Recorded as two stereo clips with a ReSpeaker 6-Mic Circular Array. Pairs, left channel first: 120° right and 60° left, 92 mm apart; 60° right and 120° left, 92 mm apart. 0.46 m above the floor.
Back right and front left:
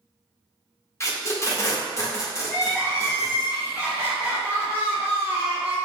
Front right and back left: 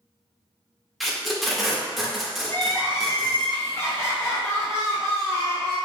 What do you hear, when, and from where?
1.0 s tape being pulled: 150° right, 0.6 m
2.5 s crying: 5° right, 1.4 m